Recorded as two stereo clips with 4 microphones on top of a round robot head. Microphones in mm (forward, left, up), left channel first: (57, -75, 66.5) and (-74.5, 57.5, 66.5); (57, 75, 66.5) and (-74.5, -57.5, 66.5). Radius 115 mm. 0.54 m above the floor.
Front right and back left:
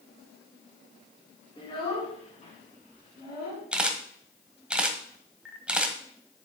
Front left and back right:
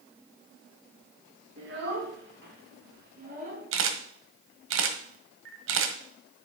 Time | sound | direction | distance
1.6 | a child speaking | 110° right | 5 m
3.7 | a camera shutter | 140° right | 1.5 m